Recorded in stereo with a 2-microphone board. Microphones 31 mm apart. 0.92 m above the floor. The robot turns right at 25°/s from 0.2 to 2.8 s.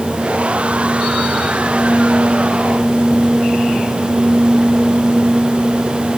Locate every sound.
Only background noise.